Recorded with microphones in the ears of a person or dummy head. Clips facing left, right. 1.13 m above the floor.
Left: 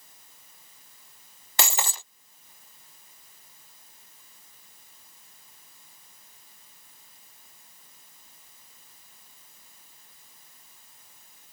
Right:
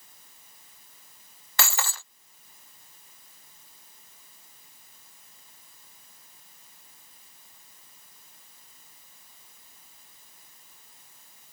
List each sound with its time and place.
1.6 s breaking glass: 20° left (ahead or behind)